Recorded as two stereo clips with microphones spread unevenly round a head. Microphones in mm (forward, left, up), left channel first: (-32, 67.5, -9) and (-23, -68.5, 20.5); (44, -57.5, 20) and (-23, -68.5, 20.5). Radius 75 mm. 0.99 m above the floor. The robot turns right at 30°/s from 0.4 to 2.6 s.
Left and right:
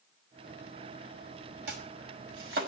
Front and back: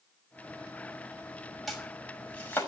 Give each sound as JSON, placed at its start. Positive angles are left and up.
{"t": 1.7, "sound": "chopping", "azimuth_deg": -80, "distance_m": 5.5}